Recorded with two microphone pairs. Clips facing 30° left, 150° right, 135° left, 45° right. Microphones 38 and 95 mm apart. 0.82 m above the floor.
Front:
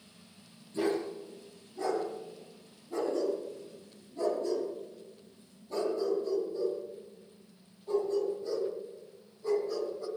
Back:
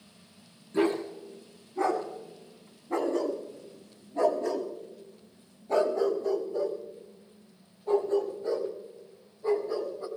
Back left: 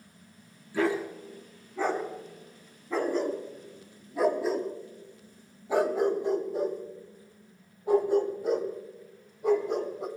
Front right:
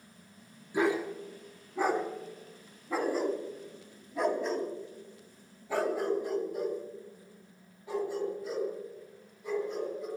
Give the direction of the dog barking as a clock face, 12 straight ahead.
4 o'clock.